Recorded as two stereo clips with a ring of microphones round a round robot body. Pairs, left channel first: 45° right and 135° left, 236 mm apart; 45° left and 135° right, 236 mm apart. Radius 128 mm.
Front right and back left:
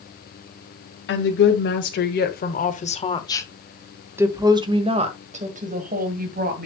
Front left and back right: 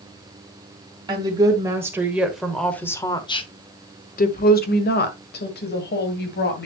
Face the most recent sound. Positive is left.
turn(degrees=90)